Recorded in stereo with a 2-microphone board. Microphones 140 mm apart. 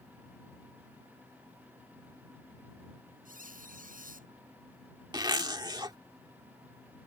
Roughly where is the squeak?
Right.